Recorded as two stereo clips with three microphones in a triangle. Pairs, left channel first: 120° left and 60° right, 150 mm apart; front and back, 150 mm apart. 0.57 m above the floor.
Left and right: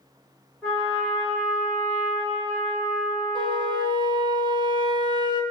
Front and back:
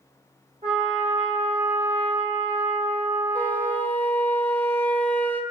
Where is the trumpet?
150° right, 2.5 m.